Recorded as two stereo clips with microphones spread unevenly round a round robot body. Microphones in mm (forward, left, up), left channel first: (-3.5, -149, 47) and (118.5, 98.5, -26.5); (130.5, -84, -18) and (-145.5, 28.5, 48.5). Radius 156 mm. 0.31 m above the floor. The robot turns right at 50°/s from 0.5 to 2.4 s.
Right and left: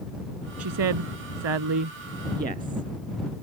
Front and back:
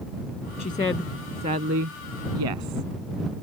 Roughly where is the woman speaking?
Ahead left.